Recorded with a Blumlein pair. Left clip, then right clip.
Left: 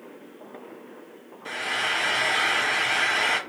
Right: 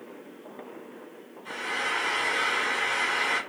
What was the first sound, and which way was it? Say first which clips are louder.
Frying: left 3 dB; 35° left.